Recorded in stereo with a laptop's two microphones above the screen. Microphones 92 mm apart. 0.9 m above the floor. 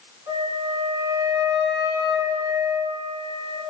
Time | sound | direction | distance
0.3 | a flute | 60° right (ahead or behind) | 1.4 m